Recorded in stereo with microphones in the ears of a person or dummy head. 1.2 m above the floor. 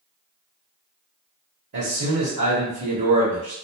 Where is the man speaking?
60° right (ahead or behind), 0.9 m.